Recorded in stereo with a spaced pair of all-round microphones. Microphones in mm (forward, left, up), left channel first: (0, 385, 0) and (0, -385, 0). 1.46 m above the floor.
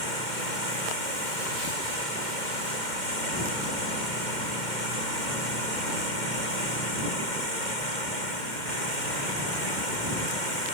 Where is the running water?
70° left (ahead or behind).